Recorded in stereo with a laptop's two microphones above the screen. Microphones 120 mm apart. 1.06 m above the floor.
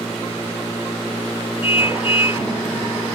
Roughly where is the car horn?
Left.